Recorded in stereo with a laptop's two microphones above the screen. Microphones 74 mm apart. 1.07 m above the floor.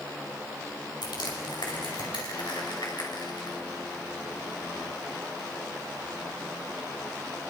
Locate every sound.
1.0 s crushing: 80° left, 6 m